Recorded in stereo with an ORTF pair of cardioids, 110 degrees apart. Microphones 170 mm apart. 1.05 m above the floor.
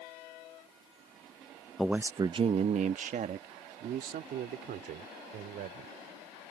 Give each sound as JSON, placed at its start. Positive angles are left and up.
{"t": 1.8, "sound": "a man speaking", "azimuth_deg": 0}